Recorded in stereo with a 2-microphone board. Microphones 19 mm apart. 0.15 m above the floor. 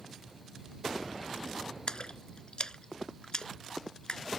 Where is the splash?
50° left (ahead or behind).